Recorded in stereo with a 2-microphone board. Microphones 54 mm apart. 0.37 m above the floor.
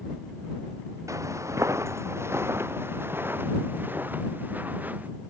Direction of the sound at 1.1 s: 70° right (ahead or behind).